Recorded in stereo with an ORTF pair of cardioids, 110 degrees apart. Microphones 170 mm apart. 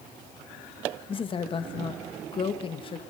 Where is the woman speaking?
35° left, 2.0 m.